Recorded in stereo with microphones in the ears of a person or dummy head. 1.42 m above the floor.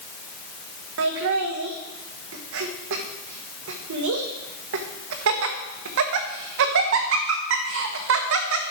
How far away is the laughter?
About 1.4 m.